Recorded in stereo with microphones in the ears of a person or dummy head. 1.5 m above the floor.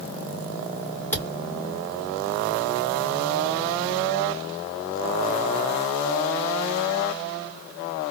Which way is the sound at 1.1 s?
15° left (ahead or behind).